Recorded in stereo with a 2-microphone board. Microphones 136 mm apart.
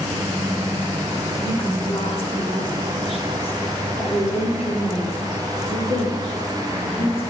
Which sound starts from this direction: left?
A woman speaking, at 1.4 s.